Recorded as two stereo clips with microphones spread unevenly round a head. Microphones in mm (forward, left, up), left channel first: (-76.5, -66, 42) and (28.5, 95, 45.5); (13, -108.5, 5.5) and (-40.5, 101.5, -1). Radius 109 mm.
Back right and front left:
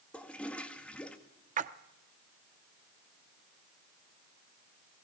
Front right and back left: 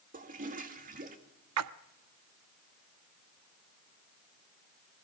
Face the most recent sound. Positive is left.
turn(degrees=105)